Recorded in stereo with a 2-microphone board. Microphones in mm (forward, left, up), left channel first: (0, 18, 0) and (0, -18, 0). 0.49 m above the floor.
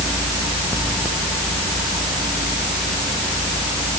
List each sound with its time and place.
Only background noise.